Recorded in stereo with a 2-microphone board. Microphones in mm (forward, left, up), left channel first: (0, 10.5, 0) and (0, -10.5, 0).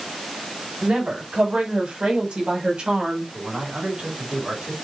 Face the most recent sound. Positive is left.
turn(degrees=-55)  # may be behind; listen again after turning